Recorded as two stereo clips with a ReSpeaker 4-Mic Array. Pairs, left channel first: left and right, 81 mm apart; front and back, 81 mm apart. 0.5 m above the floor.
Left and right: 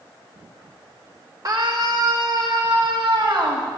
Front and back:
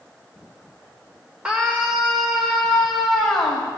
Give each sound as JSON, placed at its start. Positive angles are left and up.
{"t": 1.4, "sound": "a scream", "azimuth_deg": -105, "distance_m": 1.5}